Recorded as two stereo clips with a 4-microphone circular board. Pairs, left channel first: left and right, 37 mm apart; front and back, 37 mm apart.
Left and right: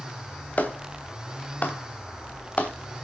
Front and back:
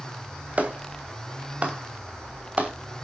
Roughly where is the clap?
Behind left.